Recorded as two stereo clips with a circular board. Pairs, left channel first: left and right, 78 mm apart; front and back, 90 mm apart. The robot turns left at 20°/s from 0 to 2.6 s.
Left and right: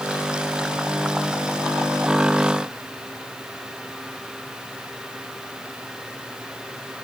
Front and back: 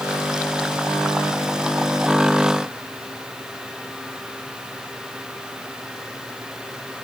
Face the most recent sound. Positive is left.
No sound to turn to.